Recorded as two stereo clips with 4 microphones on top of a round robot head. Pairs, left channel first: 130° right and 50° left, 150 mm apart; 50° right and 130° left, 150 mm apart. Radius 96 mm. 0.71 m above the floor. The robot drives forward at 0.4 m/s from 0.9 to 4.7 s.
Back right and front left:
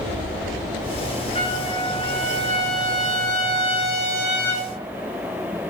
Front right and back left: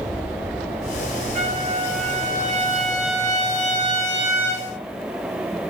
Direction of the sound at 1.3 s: 175° left.